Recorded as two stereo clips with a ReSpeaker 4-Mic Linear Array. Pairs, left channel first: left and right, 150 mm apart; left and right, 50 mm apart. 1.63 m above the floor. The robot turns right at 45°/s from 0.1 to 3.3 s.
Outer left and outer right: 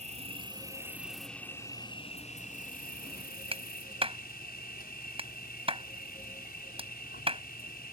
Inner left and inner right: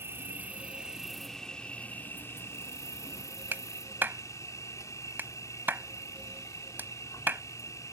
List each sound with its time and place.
0.0 s an insect: 50° right; by 7.9 s 95° left
3.5 s a clap: 35° right (ahead or behind)